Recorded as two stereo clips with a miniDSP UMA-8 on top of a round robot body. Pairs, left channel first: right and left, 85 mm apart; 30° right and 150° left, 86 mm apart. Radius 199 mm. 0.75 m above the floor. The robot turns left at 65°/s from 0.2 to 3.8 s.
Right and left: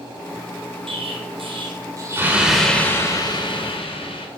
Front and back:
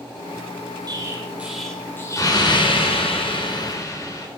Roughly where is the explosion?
Left.